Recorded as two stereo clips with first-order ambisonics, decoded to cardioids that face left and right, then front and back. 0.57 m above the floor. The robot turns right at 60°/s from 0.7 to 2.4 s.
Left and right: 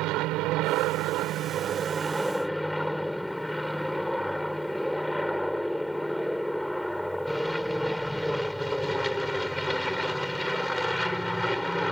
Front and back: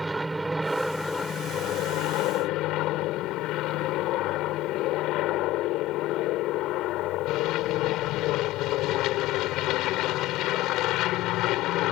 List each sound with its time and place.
0.0 s an aircraft: 100° right; by 11.9 s 5° left